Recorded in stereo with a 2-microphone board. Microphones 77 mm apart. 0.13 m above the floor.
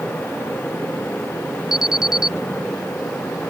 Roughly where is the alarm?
Centre.